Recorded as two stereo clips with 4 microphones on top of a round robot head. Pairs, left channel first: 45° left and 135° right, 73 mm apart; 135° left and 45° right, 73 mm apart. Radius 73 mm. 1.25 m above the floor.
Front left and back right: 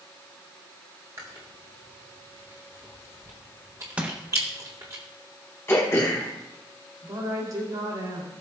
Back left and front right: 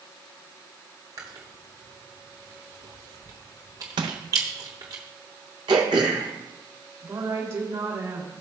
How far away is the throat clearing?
About 1.1 m.